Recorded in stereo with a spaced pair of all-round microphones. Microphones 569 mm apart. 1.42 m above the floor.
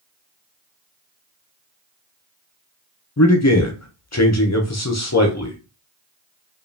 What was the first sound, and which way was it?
A man speaking, 30° left (ahead or behind).